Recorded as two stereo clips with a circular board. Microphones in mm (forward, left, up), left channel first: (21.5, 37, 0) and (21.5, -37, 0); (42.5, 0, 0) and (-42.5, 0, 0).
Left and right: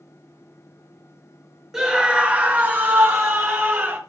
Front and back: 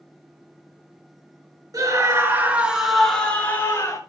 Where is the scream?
165° right, 2.5 m; by 4.0 s 45° right, 2.5 m.